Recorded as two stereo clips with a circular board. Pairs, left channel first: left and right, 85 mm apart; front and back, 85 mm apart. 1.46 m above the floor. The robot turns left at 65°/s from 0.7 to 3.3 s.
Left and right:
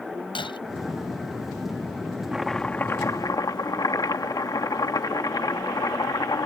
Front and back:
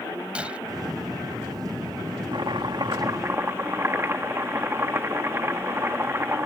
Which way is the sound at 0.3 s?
105° left.